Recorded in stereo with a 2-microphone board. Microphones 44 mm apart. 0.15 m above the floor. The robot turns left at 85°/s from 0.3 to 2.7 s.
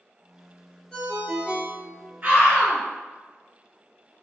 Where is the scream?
65° right, 1.9 m; by 2.8 s 105° right, 1.9 m.